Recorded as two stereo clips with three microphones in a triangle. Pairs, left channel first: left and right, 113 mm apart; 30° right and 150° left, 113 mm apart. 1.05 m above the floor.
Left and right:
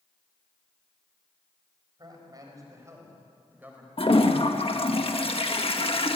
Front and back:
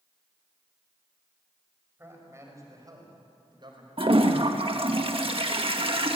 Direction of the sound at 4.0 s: 120° left.